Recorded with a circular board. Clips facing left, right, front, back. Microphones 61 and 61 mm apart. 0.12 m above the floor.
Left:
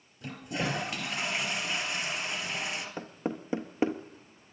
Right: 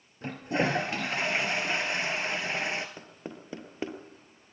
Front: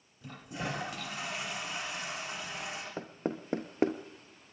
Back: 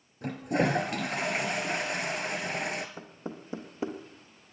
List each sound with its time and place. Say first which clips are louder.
0.2 s a toilet flushing: right 5 dB, back 12 dB; 145° right, 2.5 m
3.0 s knocking: left 8 dB, front 5 dB; 25° left, 1.6 m